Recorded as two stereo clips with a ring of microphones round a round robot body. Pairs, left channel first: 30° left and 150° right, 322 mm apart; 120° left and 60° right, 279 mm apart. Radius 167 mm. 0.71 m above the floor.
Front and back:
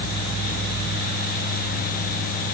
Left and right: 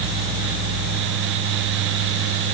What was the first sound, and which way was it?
Only background noise.